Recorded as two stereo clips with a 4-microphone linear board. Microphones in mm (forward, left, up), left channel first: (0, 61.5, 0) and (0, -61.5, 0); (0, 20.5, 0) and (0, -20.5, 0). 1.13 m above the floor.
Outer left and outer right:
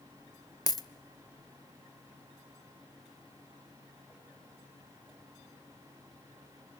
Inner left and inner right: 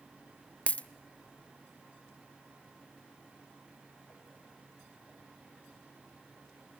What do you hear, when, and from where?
0.7 s a dropped coin: 30° left (ahead or behind), 0.7 m